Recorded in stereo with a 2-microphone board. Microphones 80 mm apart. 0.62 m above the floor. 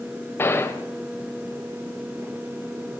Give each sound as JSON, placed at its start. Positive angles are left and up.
{"t": 0.4, "sound": "a gunshot", "side_deg": 25, "distance_m": 1.6}